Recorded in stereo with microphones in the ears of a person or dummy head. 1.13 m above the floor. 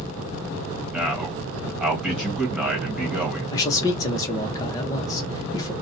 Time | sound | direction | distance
0.9 | a man speaking | 5° right (ahead or behind) | 1.3 m
3.5 | a man speaking | 20° left (ahead or behind) | 0.6 m